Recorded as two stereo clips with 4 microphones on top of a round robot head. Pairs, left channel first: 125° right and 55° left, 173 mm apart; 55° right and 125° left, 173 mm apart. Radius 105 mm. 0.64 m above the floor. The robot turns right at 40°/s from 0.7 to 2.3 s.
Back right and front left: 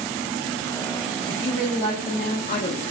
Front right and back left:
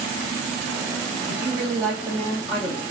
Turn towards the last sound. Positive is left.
turn(degrees=-160)